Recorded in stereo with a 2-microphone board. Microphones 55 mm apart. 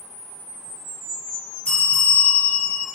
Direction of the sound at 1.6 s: 20° left (ahead or behind).